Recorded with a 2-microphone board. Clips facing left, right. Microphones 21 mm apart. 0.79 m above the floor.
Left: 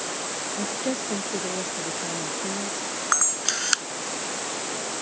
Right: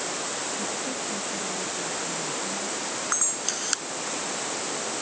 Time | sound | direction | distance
0.6 | a woman speaking | 55° left (ahead or behind) | ?
3.1 | a camera shutter | 25° left (ahead or behind) | ?